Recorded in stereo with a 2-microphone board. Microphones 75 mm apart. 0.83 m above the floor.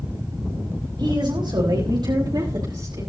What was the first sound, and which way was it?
A woman speaking, 80° right.